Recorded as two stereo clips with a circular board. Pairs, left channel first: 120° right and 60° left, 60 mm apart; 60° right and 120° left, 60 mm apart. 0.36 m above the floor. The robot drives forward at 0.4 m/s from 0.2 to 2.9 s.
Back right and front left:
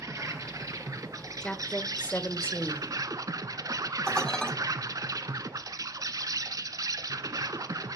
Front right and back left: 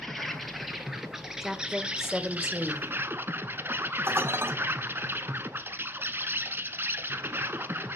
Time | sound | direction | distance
0.0 | an insect | 30° left | 1.6 m
1.4 | a woman speaking | 155° right | 1.0 m
4.1 | dishes clattering | 160° left | 1.7 m